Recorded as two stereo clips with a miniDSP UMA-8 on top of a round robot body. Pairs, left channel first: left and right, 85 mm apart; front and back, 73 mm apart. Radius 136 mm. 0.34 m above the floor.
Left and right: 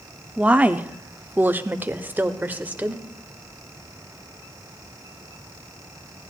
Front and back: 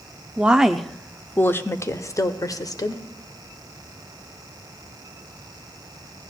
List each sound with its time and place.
0.4 s a woman speaking: 140° right, 0.9 m; by 3.0 s 20° right, 1.6 m